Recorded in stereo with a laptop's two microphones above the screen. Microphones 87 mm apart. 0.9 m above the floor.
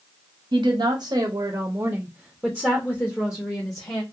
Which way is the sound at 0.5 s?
65° right (ahead or behind).